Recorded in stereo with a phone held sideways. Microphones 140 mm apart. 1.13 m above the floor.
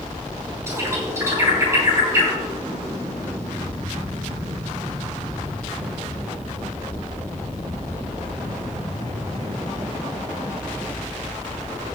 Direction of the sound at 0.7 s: 20° right (ahead or behind).